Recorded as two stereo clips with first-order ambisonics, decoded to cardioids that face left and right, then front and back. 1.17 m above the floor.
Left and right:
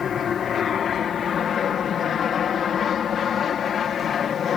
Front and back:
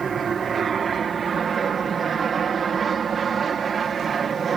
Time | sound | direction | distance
0.0 | an aircraft | 130° left | ?